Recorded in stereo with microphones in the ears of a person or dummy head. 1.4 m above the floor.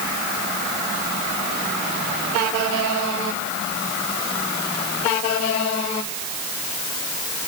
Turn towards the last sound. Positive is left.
No sound to turn to.